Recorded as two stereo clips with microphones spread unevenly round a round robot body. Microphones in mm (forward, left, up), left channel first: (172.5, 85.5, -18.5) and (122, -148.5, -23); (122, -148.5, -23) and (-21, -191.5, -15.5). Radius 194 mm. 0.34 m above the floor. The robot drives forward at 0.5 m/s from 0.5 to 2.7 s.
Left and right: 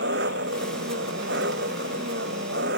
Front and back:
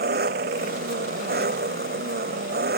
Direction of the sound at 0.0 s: 165° right.